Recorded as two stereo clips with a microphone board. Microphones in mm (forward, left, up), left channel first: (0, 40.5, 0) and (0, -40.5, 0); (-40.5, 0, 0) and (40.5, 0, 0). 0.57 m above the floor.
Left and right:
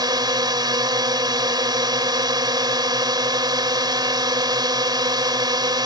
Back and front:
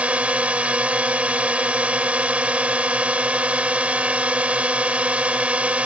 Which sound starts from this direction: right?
A drone, at 0.0 s.